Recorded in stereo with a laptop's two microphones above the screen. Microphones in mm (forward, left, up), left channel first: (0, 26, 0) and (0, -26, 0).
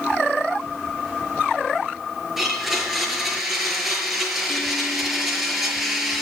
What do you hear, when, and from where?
2.4 s a blender: 5° right (ahead or behind), 6 m